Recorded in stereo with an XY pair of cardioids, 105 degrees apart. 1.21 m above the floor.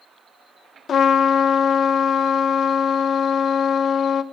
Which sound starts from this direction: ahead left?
A trumpet, at 0.9 s.